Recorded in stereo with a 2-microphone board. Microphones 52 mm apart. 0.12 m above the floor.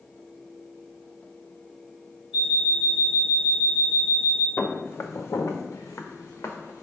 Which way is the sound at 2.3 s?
10° right (ahead or behind).